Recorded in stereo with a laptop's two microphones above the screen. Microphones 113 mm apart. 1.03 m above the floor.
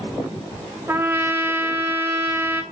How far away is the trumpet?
About 0.8 m.